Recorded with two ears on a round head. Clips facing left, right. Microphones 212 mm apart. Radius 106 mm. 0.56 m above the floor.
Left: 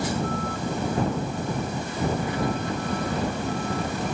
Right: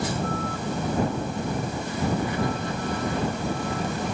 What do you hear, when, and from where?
Only background noise.